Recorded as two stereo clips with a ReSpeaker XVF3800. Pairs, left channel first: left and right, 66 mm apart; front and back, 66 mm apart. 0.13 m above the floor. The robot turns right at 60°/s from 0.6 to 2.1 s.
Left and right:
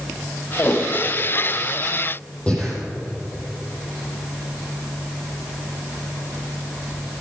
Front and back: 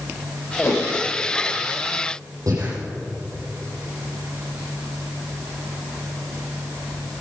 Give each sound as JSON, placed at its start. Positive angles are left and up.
{"t": 0.6, "sound": "a whoosh", "azimuth_deg": 30, "distance_m": 4.5}
{"t": 2.5, "sound": "breathing", "azimuth_deg": 160, "distance_m": 4.5}